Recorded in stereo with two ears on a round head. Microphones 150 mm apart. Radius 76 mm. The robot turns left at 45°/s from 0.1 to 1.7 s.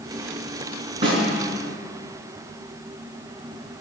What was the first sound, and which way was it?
A snare drum, 35° right (ahead or behind).